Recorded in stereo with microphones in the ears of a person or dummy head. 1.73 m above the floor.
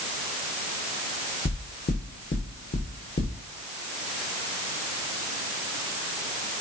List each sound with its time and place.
1.4 s knocking: 40° left (ahead or behind), 1.5 m